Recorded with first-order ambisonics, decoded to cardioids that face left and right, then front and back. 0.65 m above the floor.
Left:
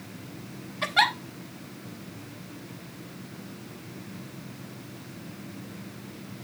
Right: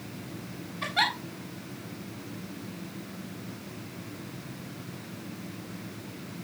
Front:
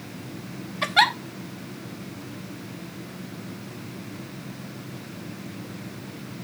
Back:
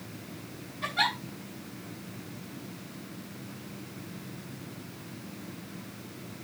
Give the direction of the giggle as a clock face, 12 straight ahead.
11 o'clock.